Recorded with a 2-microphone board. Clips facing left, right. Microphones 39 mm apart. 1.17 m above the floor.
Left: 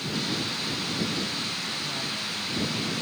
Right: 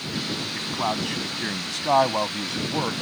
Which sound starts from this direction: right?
A man speaking, at 0.5 s.